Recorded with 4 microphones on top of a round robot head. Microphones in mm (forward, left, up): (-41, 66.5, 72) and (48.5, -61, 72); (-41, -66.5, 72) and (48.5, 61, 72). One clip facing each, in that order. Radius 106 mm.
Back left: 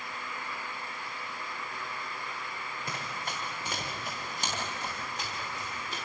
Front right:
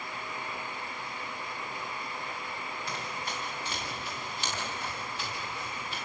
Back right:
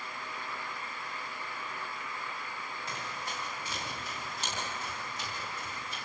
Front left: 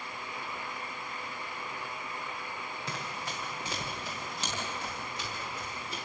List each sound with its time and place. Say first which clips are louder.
2.9 s running footsteps: back left 1 dB, front left 1 dB; 80° left, 8.5 m; by 6.0 s 70° left, 11 m